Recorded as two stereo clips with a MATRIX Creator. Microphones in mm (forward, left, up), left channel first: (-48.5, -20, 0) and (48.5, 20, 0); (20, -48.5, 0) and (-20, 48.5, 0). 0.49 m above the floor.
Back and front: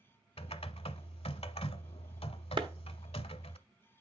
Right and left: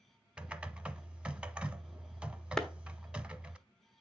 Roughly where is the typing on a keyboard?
Behind.